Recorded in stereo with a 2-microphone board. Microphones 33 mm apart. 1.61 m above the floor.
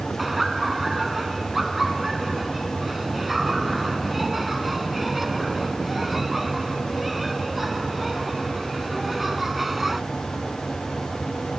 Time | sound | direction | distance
0.2 | laughter | 5° right (ahead or behind) | ?